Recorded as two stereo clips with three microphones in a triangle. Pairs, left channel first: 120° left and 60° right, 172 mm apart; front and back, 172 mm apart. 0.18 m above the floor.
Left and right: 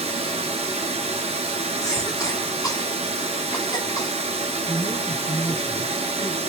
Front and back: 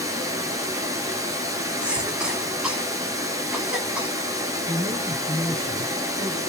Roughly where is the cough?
Left.